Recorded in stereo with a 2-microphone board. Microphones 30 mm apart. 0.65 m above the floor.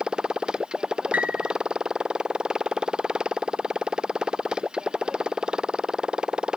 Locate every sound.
0.0 s a motorcycle: 30° right (ahead or behind)
1.1 s a piano: 60° right (ahead or behind)